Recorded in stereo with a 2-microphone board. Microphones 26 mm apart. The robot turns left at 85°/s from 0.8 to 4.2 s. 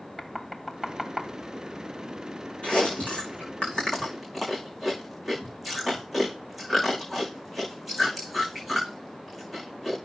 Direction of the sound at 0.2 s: 10° right (ahead or behind).